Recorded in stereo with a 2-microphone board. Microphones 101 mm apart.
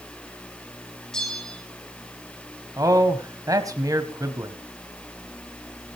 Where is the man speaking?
35° right (ahead or behind), 2.5 m.